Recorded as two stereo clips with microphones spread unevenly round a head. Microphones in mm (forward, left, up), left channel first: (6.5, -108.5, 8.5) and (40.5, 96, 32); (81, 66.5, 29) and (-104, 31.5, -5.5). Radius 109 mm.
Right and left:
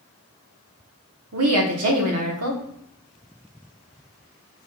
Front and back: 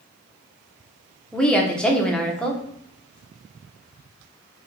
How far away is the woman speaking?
About 1.1 m.